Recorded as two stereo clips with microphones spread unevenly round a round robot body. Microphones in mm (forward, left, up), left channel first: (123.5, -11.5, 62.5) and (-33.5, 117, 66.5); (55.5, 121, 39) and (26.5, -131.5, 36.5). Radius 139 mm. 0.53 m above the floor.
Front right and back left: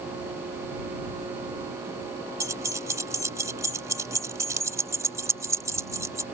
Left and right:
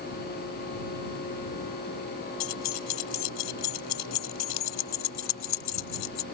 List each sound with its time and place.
2.4 s keys jangling: 65° left